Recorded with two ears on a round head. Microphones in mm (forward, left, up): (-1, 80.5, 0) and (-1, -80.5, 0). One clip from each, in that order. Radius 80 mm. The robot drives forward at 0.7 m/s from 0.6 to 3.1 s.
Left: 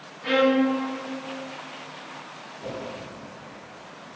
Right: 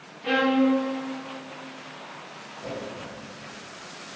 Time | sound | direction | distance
0.2 | a violin | 10° left (ahead or behind) | 0.8 m
2.6 | a whoosh | 20° left (ahead or behind) | 3 m